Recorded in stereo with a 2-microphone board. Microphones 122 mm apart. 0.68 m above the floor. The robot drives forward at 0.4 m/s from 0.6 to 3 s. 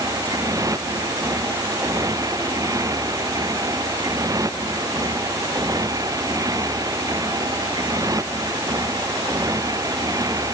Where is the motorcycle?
30° right (ahead or behind).